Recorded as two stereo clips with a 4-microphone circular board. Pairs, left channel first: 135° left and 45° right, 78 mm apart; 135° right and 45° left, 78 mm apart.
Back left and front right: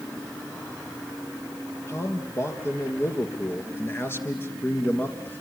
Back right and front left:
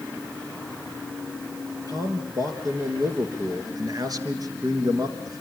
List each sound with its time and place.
1.9 s a man speaking: 80° left, 4.5 m; by 5.4 s 75° left, 2.5 m